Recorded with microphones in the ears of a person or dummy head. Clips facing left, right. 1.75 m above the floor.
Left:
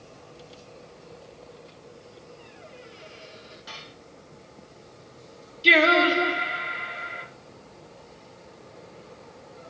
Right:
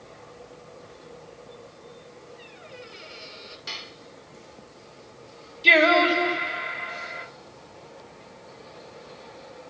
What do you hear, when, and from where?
2.4 s a squeak: 30° right (ahead or behind), 6.5 m
3.7 s dishes clattering: 30° right (ahead or behind), 4 m
5.6 s singing: centre (ahead or behind), 4 m